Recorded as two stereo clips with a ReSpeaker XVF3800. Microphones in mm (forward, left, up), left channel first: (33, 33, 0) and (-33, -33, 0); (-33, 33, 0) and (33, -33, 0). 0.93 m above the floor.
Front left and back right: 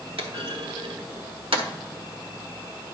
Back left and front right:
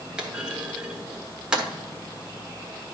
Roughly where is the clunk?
Behind right.